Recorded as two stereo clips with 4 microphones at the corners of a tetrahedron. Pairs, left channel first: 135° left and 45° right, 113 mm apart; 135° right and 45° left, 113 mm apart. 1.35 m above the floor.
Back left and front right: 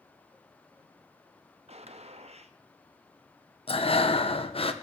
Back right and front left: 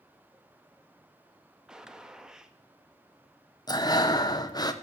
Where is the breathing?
170° left, 1.0 m.